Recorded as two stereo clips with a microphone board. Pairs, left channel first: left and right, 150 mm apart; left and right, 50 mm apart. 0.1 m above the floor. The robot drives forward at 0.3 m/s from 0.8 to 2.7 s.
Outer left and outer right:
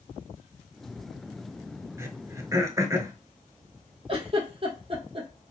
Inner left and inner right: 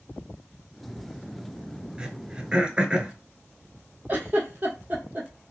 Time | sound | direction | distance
2.0 | throat clearing | 20° right (ahead or behind) | 0.7 m
4.1 | a giggle | 40° right (ahead or behind) | 1.6 m